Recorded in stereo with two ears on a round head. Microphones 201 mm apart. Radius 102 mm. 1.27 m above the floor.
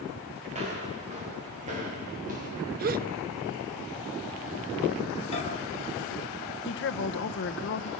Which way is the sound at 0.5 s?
30° right (ahead or behind).